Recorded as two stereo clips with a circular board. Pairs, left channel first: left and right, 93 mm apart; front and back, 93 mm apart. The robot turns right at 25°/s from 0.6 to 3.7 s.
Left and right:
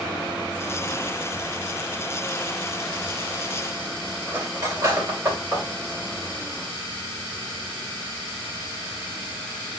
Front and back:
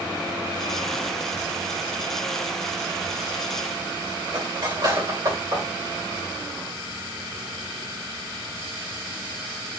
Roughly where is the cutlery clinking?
Behind right.